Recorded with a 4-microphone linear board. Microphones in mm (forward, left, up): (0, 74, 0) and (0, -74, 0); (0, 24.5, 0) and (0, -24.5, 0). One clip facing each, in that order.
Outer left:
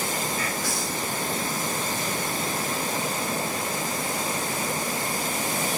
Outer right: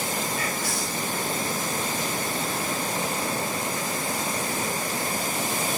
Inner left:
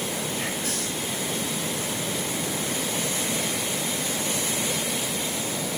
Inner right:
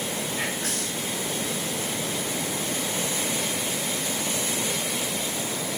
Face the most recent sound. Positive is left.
turn(degrees=-60)  # may be behind; listen again after turning